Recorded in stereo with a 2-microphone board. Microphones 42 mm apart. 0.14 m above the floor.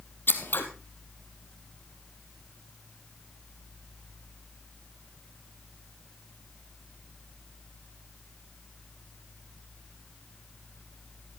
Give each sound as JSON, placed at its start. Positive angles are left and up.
{"t": 0.3, "sound": "scissors", "side_deg": 55, "distance_m": 1.5}